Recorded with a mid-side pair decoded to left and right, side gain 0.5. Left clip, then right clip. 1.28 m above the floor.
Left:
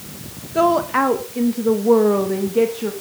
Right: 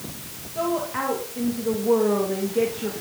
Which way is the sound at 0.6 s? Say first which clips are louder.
Left 9 dB; 70° left.